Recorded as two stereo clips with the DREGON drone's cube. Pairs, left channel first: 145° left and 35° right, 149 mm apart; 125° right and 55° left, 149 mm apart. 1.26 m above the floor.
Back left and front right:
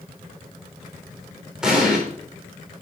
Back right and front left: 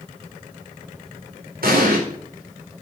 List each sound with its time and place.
1.6 s an explosion: 50° left, 4 m